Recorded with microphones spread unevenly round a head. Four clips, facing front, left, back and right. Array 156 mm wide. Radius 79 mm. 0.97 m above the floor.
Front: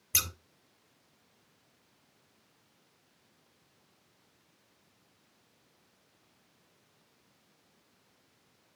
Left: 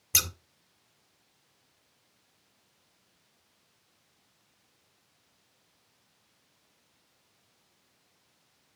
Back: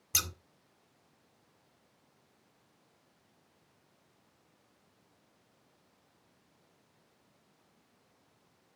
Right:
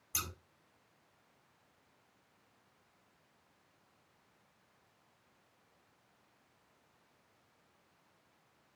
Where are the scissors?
95° left, 1.8 m.